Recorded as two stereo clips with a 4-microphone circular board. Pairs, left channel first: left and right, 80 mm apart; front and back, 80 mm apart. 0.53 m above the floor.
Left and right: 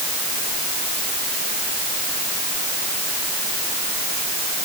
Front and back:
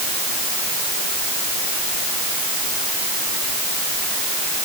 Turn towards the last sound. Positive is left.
No sound to turn to.